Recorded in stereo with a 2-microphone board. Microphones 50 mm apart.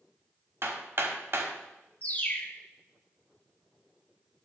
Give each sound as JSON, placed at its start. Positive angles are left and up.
{"t": 0.6, "sound": "hammering", "side_deg": -55, "distance_m": 1.1}
{"t": 2.0, "sound": "a bird", "side_deg": 35, "distance_m": 0.7}